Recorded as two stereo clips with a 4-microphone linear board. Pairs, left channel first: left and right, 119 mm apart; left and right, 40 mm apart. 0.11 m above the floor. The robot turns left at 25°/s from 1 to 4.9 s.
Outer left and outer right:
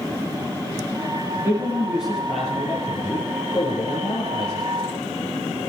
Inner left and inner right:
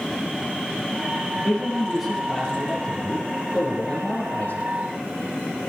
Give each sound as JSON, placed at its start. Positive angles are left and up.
{"t": 1.4, "sound": "a man speaking", "azimuth_deg": -155, "distance_m": 3.5}